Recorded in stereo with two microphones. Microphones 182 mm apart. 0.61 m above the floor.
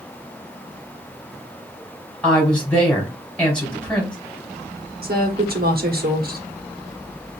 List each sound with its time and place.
2.2 s a woman speaking: 5° left (ahead or behind), 2.5 m
5.0 s a woman speaking: 60° right (ahead or behind), 1.1 m